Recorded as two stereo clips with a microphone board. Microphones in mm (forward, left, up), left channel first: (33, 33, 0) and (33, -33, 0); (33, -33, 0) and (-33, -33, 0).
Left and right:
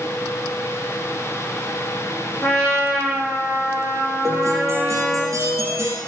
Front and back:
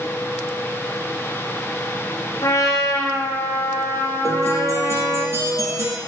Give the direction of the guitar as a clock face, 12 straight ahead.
4 o'clock.